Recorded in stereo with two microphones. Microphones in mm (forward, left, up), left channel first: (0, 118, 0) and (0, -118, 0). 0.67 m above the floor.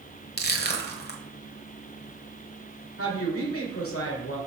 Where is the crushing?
45° left (ahead or behind), 1.2 m.